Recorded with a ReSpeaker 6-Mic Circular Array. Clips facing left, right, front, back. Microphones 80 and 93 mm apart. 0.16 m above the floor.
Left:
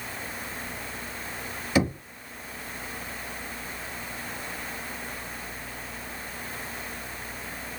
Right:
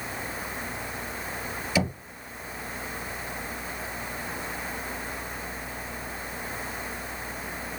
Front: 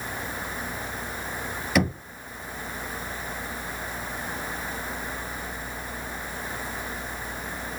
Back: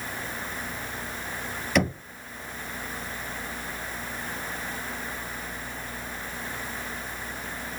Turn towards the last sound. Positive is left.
turn(degrees=85)